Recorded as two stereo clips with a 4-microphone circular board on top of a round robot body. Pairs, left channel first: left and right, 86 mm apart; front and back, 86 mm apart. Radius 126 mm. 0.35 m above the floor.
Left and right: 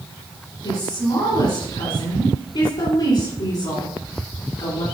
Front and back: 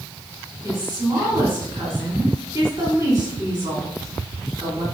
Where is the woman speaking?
115° left, 4 m.